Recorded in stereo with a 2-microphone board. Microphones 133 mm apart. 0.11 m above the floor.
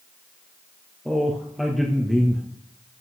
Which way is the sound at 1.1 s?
Centre (ahead or behind).